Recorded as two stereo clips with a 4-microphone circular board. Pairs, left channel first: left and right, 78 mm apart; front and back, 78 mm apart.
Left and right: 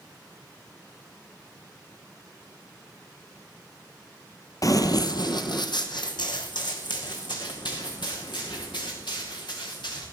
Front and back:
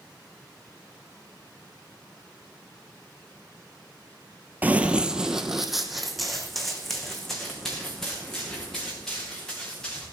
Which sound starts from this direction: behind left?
Running footsteps, at 4.6 s.